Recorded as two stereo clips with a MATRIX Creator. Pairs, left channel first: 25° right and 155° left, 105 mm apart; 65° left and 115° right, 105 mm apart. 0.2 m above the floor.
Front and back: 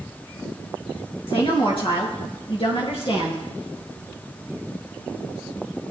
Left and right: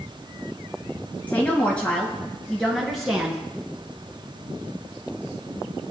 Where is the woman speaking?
5° right, 3 m; by 3.4 s 30° right, 2.5 m.